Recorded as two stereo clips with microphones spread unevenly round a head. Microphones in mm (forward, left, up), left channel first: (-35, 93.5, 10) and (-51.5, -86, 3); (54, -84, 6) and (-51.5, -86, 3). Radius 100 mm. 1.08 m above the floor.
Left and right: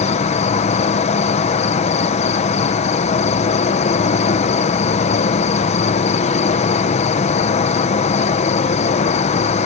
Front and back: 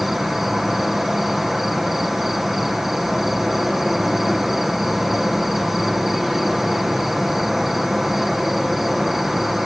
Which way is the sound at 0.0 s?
95° left.